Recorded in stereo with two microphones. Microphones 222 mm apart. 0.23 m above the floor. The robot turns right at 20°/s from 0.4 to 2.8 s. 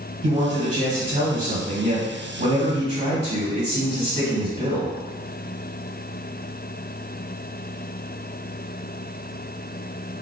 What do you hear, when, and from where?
0.2 s a man speaking: 110° right, 1.6 m; by 5.0 s 65° right, 1.6 m